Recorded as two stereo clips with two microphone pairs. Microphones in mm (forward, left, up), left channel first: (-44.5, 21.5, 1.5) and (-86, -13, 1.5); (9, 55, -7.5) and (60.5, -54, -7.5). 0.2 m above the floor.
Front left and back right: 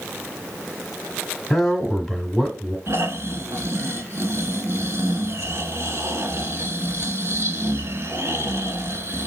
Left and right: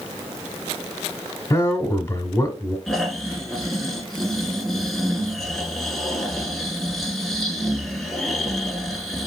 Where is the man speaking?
145° left, 1.2 m.